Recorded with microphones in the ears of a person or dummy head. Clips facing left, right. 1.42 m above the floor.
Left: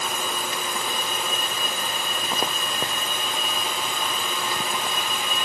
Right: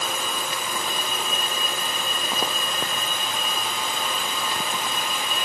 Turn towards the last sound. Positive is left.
No sound to turn to.